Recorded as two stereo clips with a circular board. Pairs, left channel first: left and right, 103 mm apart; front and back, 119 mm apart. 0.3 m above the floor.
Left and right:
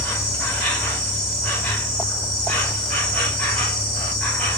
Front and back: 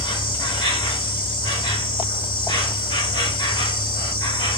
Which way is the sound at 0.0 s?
15° left.